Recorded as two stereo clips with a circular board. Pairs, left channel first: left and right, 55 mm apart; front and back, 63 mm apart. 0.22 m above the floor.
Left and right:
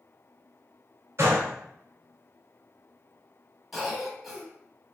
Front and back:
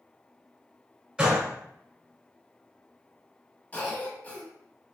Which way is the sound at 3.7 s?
10° right.